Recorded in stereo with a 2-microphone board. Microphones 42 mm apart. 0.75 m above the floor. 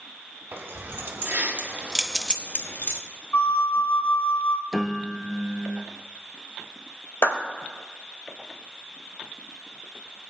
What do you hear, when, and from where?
0.5 s keys jangling: 65° right (ahead or behind), 1.9 m; by 3.0 s 65° left (ahead or behind), 1.1 m
3.3 s a flute: 50° left (ahead or behind), 0.6 m
4.7 s a piano: centre (ahead or behind), 0.5 m
7.2 s a clap: 80° left, 2 m